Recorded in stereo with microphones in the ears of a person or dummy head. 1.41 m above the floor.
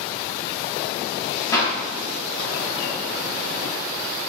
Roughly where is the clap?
Centre.